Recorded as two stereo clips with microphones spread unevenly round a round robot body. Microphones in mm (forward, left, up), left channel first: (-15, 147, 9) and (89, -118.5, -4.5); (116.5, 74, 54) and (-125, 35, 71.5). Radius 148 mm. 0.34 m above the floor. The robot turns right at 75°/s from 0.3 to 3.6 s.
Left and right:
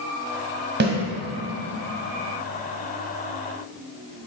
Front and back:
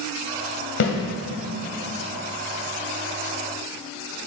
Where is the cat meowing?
No cat meowing in this recording.